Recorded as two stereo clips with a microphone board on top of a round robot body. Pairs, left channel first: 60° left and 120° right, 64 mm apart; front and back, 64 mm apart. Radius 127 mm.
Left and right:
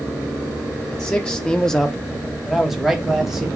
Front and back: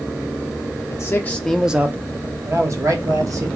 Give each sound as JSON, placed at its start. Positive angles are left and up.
{"t": 0.9, "sound": "a man speaking", "azimuth_deg": -5, "distance_m": 0.7}